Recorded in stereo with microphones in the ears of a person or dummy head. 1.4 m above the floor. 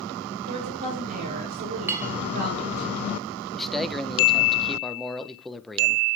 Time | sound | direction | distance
0.5 | a woman speaking | 45° right (ahead or behind) | 4 m
1.9 | a clink | 15° right (ahead or behind) | 0.5 m
3.5 | a man speaking | centre (ahead or behind) | 0.9 m